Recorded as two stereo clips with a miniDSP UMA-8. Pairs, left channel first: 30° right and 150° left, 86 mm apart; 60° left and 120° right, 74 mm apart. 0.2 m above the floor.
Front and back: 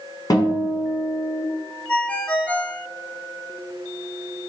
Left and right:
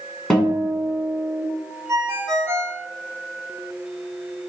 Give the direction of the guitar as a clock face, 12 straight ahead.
1 o'clock.